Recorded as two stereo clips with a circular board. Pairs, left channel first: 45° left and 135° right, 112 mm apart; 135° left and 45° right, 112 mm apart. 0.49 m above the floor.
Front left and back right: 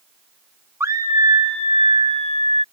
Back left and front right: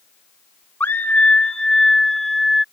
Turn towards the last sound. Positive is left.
turn(degrees=-135)